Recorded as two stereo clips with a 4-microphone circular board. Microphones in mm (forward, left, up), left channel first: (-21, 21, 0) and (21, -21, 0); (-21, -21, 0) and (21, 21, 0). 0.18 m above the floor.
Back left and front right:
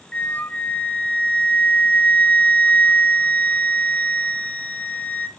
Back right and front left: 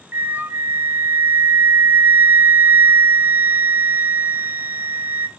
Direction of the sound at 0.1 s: 80° left.